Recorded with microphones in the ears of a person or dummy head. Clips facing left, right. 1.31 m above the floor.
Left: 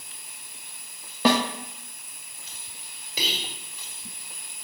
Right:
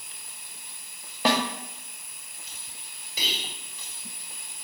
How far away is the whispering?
About 1.4 m.